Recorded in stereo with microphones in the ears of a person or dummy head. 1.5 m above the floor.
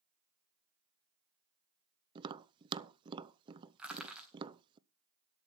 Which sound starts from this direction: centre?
Crushing, at 3.8 s.